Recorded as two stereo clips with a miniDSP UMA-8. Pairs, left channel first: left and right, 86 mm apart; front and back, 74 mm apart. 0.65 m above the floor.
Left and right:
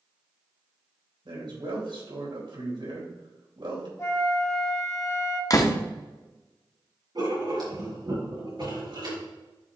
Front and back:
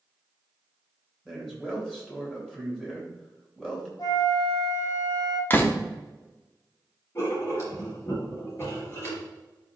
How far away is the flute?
About 2.0 m.